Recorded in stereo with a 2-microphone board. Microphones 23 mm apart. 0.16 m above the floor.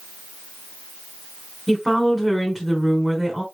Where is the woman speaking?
5° right (ahead or behind), 1.3 m.